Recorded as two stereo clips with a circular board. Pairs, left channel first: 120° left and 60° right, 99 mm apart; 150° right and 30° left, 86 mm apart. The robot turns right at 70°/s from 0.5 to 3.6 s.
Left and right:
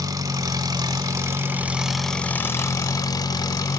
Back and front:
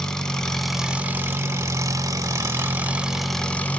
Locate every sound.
0.0 s an engine running: 75° right, 0.8 m; by 3.8 s 145° left, 0.8 m